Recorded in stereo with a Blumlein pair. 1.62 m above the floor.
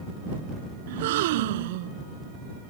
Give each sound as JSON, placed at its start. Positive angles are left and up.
{"t": 0.9, "sound": "a gasp", "azimuth_deg": -55}